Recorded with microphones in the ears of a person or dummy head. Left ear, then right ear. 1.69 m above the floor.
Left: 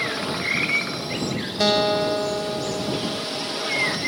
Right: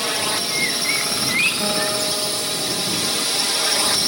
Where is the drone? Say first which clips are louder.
Right 3 dB; 55° right (ahead or behind); by 4.1 s 65° right (ahead or behind).